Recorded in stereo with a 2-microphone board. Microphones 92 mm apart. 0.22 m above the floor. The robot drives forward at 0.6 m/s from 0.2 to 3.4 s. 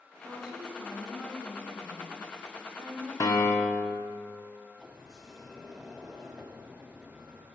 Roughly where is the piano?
Left.